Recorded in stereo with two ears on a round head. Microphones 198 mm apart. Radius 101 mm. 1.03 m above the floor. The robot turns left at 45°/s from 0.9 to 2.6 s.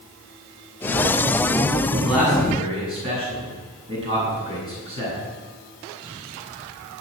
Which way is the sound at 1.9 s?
5° left (ahead or behind).